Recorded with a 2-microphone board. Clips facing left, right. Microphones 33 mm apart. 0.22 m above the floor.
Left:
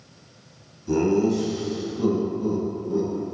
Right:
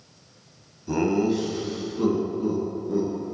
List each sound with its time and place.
0.9 s laughter: 10° right (ahead or behind), 0.9 m; by 3.1 s 60° right (ahead or behind), 2.5 m